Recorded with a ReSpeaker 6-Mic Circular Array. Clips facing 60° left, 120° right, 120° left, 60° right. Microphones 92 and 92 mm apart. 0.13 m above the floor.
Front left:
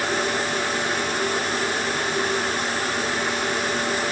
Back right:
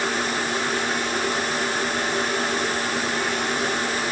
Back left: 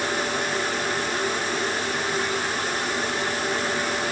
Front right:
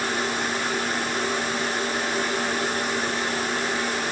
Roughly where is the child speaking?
No child speaking in this recording.